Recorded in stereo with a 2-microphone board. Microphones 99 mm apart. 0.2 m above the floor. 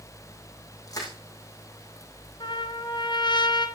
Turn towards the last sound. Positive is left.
turn(degrees=55)  # may be behind; listen again after turning